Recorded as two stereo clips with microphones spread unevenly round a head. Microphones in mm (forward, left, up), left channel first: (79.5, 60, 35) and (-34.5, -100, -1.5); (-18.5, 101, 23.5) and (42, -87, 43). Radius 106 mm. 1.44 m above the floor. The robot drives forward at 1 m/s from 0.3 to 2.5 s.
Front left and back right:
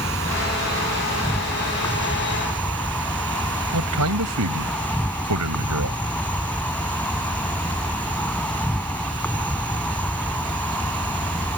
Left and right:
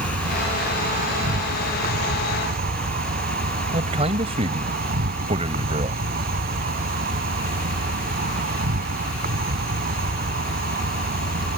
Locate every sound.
0.0 s an insect: 20° right; by 11.6 s 25° right
3.7 s a man speaking: 135° right